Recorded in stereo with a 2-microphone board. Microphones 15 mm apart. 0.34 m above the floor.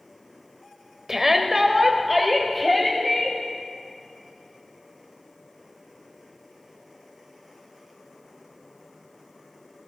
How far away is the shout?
About 1.1 m.